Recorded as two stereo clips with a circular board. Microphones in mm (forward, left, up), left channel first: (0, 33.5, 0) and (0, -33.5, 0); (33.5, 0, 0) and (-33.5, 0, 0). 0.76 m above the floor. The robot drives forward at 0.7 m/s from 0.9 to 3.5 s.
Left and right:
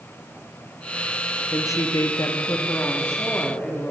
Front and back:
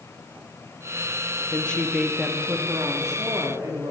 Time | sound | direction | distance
1.5 | a woman speaking | 60° left | 0.8 m